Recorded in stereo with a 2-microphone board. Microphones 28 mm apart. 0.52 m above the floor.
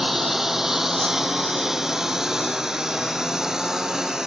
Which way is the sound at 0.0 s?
10° right (ahead or behind).